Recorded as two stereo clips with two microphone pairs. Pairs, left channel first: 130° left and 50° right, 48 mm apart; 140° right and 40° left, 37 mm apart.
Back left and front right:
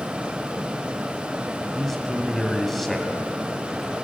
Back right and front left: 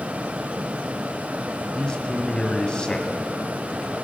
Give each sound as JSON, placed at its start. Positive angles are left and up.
{"t": 1.7, "sound": "a man speaking", "azimuth_deg": -150, "distance_m": 1.2}